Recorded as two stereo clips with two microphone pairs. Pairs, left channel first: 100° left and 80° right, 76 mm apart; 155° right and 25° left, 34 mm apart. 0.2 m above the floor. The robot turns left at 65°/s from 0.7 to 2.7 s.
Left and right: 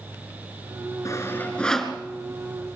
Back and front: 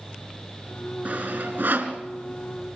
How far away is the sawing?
About 2.5 m.